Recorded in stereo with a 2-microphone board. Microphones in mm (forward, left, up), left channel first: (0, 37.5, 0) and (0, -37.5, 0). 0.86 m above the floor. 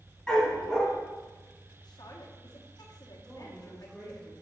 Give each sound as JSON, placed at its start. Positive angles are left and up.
{"t": 0.3, "sound": "a dog barking", "side_deg": 10, "distance_m": 2.5}
{"t": 1.8, "sound": "a woman speaking", "side_deg": 60, "distance_m": 1.3}
{"t": 3.2, "sound": "a woman speaking", "side_deg": 5, "distance_m": 3.5}